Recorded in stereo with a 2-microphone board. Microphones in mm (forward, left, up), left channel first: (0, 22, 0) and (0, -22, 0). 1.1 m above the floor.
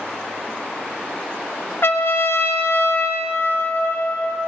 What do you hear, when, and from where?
1.8 s a trumpet: 55° left (ahead or behind), 1.0 m